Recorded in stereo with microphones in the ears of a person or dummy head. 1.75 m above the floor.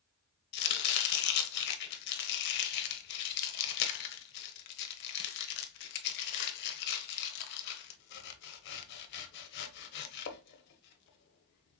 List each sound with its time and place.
0.5 s chopping: 60° left (ahead or behind), 0.8 m